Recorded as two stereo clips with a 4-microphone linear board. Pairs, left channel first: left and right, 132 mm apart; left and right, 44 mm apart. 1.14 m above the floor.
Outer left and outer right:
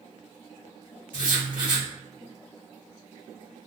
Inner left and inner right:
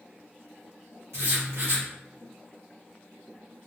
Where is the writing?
80° right, 1.3 m.